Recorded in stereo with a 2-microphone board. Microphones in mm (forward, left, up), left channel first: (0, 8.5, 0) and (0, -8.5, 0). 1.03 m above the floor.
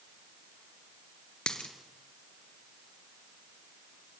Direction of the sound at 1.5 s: 65° left (ahead or behind).